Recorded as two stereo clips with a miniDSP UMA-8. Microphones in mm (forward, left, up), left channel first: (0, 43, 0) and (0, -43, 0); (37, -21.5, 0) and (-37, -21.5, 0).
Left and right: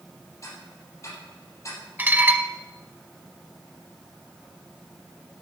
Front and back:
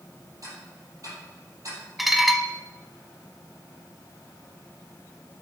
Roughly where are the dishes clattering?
Right.